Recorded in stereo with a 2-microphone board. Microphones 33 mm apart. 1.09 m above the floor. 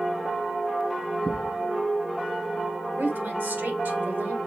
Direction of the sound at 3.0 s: 80° right.